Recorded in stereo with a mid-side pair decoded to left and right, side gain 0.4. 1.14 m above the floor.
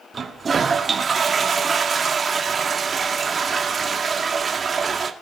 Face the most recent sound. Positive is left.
turn(degrees=-40)